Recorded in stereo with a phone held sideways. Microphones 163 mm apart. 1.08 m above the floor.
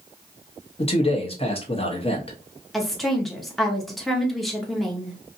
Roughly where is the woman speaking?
Centre.